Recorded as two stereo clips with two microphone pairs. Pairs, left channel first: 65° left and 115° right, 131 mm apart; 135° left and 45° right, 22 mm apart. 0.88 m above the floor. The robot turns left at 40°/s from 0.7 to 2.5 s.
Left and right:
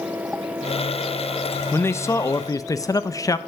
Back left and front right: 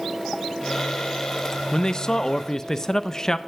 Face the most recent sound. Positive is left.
turn(degrees=85)